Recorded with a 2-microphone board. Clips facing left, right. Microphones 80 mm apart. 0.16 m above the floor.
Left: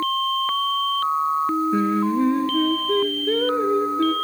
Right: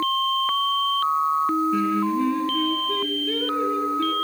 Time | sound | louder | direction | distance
1.7 | singing | left 2 dB | 35° left (ahead or behind) | 0.6 m